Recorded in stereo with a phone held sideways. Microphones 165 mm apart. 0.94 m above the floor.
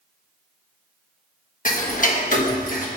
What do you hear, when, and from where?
1.6 s ticking: 50° left (ahead or behind), 1.2 m